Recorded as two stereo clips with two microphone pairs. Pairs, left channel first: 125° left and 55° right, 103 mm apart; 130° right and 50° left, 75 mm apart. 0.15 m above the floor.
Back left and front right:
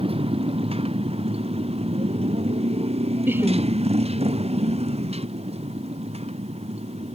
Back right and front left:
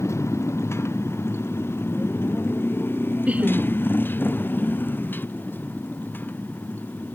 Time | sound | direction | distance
0.0 | a motorcycle | 80° right | ?
3.3 | laughter | straight ahead | ?